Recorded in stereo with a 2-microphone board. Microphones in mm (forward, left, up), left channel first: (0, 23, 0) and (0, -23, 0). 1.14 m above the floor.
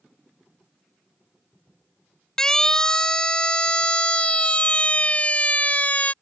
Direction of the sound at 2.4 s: 15° left (ahead or behind).